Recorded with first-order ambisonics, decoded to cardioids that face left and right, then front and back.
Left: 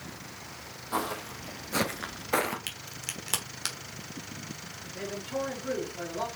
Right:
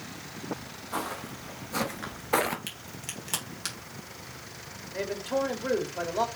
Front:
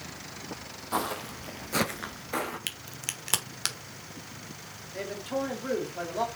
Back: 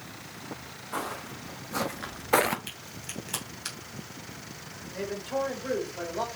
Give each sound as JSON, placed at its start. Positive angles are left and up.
{"t": 0.9, "sound": "footsteps", "azimuth_deg": 20, "distance_m": 1.6}
{"t": 2.7, "sound": "a crack", "azimuth_deg": 15, "distance_m": 1.0}
{"t": 4.9, "sound": "a man speaking", "azimuth_deg": -60, "distance_m": 1.5}